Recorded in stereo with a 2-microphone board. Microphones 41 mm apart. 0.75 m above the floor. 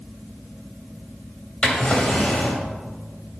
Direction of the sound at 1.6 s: 25° left (ahead or behind).